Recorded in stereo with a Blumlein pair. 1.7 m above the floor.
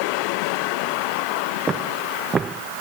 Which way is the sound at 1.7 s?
20° right.